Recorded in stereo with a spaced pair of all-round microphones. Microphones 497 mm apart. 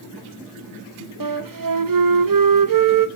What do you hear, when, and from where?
1.2 s a flute: 45° right (ahead or behind), 0.5 m